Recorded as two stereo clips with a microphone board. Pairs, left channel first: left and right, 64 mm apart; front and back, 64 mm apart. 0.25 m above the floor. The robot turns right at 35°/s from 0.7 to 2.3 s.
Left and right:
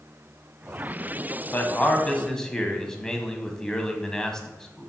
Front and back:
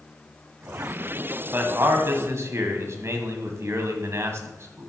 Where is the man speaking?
140° left, 1.4 m; by 4.9 s 165° left, 1.4 m.